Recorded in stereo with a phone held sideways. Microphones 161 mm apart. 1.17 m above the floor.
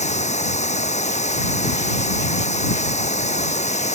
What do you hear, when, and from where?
0.0 s running water: 45° left (ahead or behind)